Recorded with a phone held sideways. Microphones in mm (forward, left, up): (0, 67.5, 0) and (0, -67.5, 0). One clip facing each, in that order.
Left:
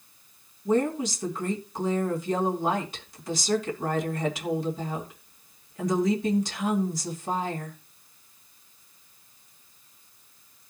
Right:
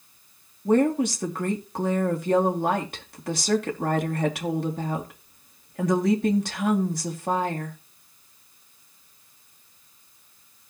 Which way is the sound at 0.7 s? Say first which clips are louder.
Right 4 dB; 60° right (ahead or behind).